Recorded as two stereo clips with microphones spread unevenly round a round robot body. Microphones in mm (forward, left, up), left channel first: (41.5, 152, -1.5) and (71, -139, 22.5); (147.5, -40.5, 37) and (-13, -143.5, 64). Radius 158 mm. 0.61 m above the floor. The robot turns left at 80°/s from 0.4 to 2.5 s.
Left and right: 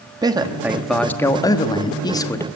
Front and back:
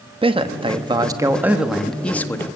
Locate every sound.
0.2 s a man speaking: 150° right, 1.0 m; by 2.5 s 45° left, 1.0 m